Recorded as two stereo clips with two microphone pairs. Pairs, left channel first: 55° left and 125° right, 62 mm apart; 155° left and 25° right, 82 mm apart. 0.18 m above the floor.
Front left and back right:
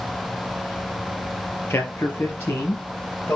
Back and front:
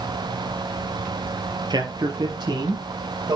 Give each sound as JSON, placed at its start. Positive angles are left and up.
{"t": 1.7, "sound": "a man speaking", "azimuth_deg": 0, "distance_m": 4.5}